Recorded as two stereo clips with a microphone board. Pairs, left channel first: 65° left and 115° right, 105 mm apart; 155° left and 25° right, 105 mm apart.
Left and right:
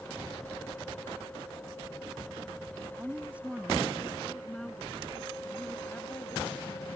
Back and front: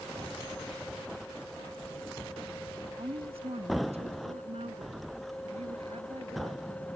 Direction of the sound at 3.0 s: 45° right.